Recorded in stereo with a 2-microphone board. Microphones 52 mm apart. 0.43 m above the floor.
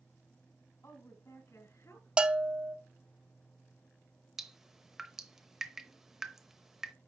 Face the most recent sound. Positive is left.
turn(degrees=-10)  # may be behind; listen again after turning